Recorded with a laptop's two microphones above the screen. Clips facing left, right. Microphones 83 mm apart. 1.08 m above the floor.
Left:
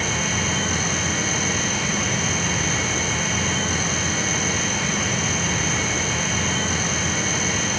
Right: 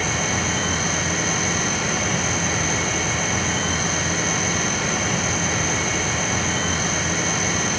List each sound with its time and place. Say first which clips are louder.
0.0 s a fan: right 1 dB; 45° right (ahead or behind), 4.5 m